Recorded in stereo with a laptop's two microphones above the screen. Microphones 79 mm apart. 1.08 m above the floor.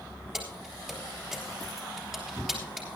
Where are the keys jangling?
10° right (ahead or behind), 3.5 m.